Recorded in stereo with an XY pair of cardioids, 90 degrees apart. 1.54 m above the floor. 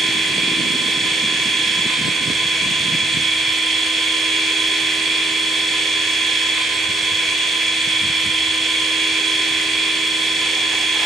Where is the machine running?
55° right, 9 m.